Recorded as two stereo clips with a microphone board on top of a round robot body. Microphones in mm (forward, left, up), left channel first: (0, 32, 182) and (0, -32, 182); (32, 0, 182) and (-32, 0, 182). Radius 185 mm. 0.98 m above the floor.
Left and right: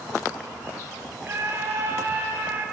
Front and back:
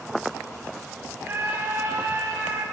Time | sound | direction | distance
1.2 | a scream | 140° right | 9 m